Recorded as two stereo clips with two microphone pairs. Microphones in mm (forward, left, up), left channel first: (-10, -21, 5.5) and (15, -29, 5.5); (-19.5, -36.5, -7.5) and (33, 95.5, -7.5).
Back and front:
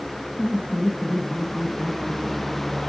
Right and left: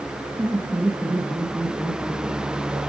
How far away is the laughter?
About 1.9 m.